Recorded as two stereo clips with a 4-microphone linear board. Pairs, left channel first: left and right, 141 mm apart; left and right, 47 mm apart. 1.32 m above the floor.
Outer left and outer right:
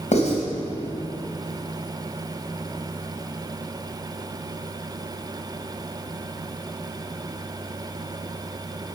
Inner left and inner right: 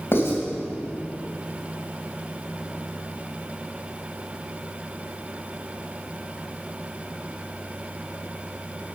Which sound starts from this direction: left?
Writing, at 0.1 s.